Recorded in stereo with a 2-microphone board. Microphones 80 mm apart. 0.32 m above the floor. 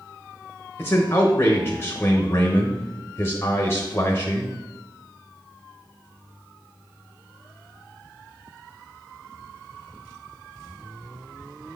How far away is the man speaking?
About 1.0 m.